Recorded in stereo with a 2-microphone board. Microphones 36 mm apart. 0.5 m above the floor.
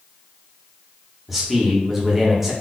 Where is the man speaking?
5° right (ahead or behind), 0.9 m.